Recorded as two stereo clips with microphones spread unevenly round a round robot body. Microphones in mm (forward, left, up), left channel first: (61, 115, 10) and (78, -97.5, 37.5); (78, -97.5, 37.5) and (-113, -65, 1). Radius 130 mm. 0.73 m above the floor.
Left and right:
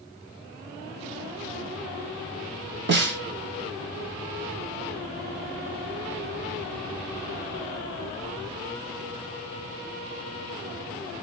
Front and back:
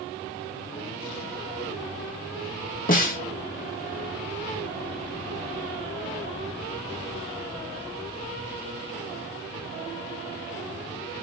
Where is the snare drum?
50° right, 1.1 m.